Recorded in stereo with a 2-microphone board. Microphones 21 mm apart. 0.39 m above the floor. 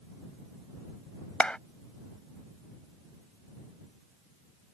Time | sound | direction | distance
1.4 | a clap | 60° left (ahead or behind) | ?